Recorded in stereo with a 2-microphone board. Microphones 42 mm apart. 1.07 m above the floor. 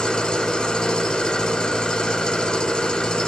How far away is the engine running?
About 1.1 m.